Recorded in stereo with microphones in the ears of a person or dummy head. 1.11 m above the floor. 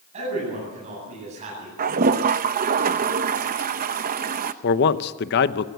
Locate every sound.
0.1 s a man speaking: 35° right (ahead or behind), 9.5 m
1.8 s a toilet flushing: 40° right (ahead or behind), 0.7 m
4.6 s a man speaking: 55° left (ahead or behind), 0.9 m